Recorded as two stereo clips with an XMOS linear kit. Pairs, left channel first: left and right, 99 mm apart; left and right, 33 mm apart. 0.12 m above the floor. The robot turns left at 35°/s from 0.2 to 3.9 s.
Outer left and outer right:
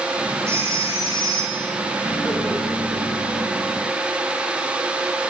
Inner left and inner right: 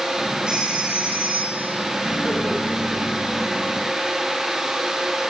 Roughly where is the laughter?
Ahead left.